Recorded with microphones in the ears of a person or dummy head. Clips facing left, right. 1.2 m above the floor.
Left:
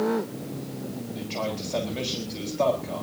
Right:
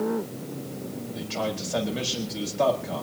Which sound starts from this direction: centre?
A man speaking, at 1.1 s.